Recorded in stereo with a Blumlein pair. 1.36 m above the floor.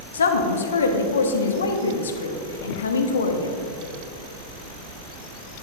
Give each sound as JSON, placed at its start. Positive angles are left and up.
{"t": 0.1, "sound": "a woman speaking", "azimuth_deg": 70, "distance_m": 1.1}